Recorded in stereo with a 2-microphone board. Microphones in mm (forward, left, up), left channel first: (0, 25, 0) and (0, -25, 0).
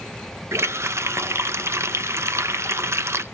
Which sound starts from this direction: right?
A running tap, at 0.5 s.